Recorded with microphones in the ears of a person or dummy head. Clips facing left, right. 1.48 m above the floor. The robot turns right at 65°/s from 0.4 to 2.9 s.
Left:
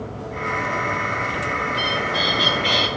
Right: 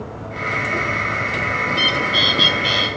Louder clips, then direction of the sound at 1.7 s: Right 2 dB; 85° right.